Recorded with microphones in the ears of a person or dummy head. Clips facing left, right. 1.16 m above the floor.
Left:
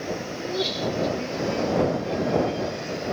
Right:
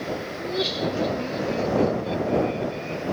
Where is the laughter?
5° left (ahead or behind); by 3.0 s 25° right (ahead or behind).